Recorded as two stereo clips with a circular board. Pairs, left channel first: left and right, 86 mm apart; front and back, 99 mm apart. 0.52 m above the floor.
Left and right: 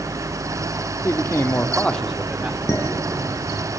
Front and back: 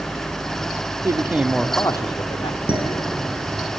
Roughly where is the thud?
I don't hear a thud.